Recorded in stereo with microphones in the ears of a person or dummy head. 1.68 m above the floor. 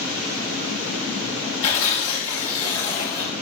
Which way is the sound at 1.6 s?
35° left (ahead or behind).